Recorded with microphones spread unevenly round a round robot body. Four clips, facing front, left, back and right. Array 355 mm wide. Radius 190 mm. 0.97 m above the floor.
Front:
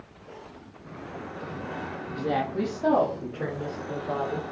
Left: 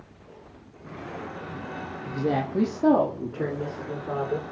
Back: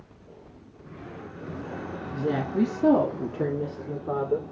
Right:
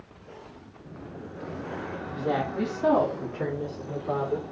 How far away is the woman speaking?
About 1.0 m.